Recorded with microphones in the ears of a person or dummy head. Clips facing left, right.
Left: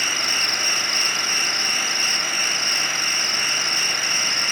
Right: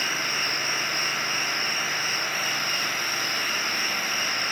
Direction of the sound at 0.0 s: 55° left (ahead or behind).